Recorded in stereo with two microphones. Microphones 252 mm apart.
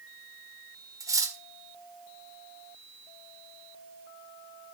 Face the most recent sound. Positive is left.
turn(degrees=-15)  # may be behind; listen again after turning